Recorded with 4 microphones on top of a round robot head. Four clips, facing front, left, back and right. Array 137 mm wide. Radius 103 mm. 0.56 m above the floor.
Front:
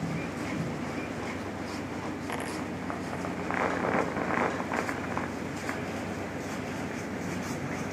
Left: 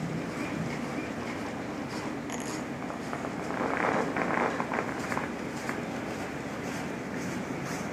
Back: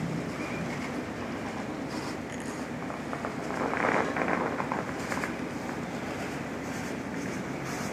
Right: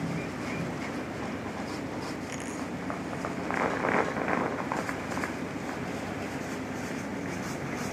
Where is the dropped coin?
15° left.